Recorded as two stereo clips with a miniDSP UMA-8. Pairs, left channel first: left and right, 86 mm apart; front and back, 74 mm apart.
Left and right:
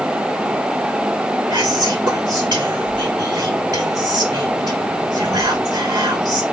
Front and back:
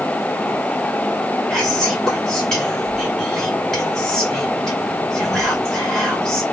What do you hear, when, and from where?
1.5 s whispering: 80° right, 2 m